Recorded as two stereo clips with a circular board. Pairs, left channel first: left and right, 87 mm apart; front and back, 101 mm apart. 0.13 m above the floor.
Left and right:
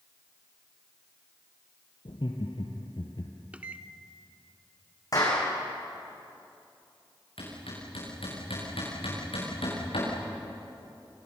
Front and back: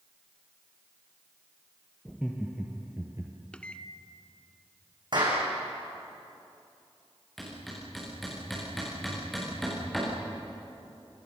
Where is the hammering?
90° left, 9.5 m.